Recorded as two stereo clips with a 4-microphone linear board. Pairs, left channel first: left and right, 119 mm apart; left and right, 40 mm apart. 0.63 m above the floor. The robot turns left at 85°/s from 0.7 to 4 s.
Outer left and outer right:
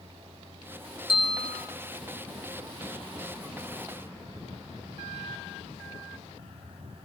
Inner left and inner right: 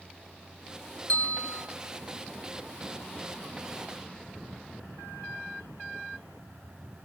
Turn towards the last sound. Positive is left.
turn(degrees=-110)